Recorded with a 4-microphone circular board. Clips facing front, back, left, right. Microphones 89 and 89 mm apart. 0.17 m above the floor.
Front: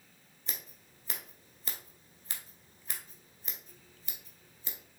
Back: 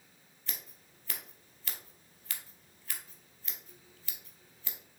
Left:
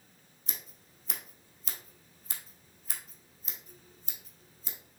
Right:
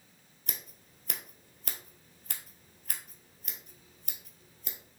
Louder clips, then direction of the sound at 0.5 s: Front 2 dB, right 2 dB; 70° right.